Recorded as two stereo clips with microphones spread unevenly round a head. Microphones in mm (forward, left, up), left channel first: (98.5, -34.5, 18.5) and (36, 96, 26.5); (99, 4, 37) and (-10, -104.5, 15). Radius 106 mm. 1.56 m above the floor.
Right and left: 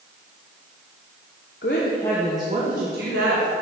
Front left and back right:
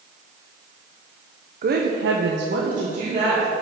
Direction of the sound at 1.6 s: 105° right.